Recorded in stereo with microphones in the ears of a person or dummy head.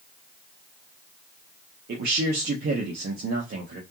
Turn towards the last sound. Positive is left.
turn(degrees=-50)  # may be behind; listen again after turning